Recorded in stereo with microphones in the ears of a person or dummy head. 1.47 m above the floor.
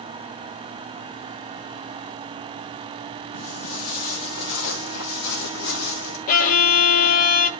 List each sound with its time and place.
3.3 s footsteps: 55° left (ahead or behind), 2.5 m; by 6.2 s 60° left (ahead or behind), 3.5 m
6.3 s a violin: 45° left (ahead or behind), 1.3 m